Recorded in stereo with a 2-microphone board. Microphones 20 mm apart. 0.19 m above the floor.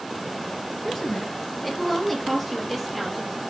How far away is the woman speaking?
About 2 m.